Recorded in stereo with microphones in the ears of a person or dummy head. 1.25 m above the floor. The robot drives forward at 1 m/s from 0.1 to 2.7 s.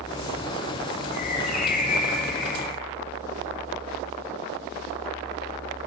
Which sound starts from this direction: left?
A bird, at 1.1 s.